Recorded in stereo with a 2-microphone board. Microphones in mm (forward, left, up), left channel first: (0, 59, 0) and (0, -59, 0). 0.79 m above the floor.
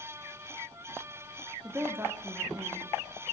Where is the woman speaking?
15° right (ahead or behind), 1.7 m.